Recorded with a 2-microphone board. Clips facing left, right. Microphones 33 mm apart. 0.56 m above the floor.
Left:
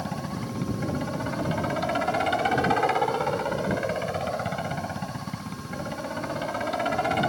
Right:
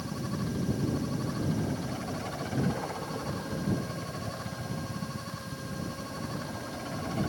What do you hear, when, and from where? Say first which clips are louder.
0.0 s a helicopter: left 3 dB; 65° left (ahead or behind)